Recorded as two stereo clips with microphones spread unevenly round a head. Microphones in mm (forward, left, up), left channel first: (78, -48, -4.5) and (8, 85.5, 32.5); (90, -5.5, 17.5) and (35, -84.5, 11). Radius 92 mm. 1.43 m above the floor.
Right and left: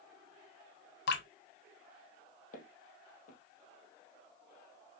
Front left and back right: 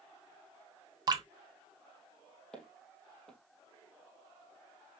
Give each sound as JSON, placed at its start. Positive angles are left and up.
{"t": 1.1, "sound": "dripping", "azimuth_deg": -75, "distance_m": 1.1}
{"t": 2.5, "sound": "footsteps", "azimuth_deg": -25, "distance_m": 3.0}